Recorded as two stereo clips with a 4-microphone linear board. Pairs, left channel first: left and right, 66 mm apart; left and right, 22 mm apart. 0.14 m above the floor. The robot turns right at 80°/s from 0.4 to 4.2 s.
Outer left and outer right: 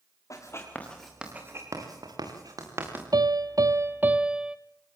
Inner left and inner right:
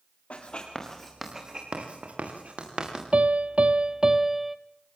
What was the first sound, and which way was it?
Writing, 55° left (ahead or behind).